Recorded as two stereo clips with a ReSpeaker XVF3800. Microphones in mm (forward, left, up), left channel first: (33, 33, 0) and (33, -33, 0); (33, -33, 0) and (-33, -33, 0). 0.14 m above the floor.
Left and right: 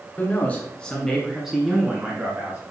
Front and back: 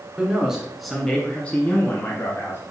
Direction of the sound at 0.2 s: 120° left.